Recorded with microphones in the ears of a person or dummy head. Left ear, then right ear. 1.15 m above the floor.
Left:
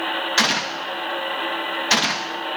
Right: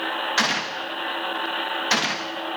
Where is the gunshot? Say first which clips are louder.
Left 4 dB; centre (ahead or behind), 0.9 m.